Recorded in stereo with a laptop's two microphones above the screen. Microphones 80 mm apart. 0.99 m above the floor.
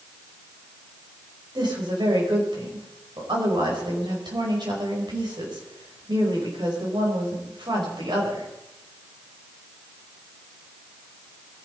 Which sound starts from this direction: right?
A woman speaking, at 1.6 s.